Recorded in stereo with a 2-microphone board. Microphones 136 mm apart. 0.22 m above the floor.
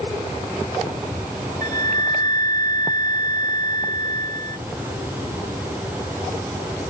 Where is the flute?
80° right, 0.6 m.